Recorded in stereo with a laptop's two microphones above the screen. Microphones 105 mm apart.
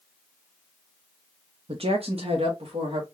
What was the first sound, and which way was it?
A woman speaking, 65° right (ahead or behind).